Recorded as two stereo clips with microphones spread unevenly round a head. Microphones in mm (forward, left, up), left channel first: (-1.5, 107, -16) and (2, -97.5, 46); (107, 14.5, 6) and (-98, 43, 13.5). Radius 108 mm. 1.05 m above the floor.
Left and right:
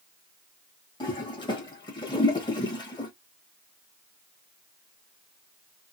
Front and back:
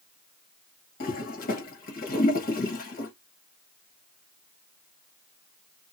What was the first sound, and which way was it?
A toilet flushing, 35° left.